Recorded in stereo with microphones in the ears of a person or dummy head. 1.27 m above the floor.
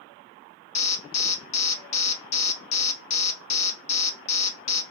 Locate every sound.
0.8 s an alarm: 35° left (ahead or behind), 1.1 m